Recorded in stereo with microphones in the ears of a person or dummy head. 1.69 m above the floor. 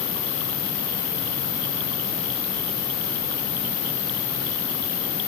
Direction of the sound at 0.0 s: 70° left (ahead or behind).